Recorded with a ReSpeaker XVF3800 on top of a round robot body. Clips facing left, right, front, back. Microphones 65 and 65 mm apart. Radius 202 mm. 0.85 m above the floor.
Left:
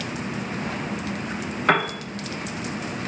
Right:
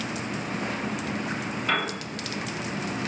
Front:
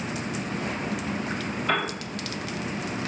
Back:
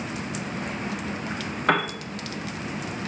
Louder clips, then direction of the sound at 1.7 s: Left 7 dB, back 4 dB; 140° left.